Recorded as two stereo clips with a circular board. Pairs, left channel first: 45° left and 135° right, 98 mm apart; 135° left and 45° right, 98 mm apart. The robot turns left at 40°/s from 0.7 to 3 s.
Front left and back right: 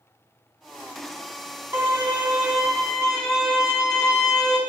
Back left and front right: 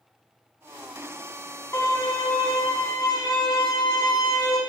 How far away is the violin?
About 2 m.